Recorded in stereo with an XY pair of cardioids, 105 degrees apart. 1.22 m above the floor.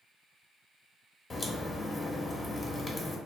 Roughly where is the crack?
Ahead left.